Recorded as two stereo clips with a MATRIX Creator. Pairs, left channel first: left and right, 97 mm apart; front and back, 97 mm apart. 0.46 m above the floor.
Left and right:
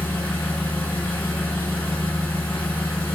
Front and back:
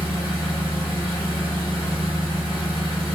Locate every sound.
0.0 s an engine running: 165° left, 1.2 m